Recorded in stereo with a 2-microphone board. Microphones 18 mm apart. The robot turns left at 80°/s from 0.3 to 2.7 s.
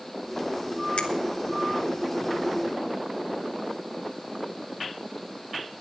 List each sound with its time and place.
1.0 s a finger snap: 85° left, 1.4 m; by 1.1 s 80° left, 1.4 m